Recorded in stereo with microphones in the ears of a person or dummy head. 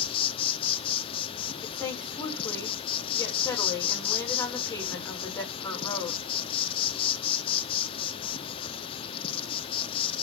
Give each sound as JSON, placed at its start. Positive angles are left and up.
{"t": 0.0, "sound": "an insect", "side_deg": 35, "distance_m": 1.3}
{"t": 1.6, "sound": "a woman speaking", "side_deg": 10, "distance_m": 6.5}